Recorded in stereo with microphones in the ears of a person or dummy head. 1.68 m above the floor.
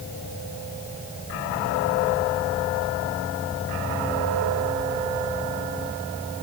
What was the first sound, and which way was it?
Only background noise.